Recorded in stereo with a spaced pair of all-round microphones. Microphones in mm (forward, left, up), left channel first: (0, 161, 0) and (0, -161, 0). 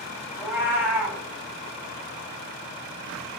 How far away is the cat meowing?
About 1.1 m.